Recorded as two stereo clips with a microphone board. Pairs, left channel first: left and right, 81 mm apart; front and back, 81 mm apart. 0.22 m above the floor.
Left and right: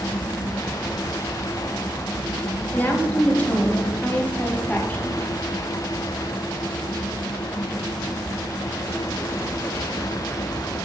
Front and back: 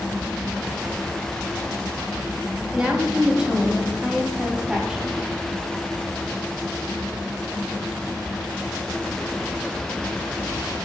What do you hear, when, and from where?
2.7 s a woman speaking: 115° left, 1.0 m